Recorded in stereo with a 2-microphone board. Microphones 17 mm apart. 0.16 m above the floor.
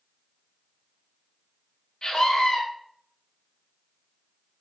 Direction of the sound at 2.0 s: 40° left (ahead or behind).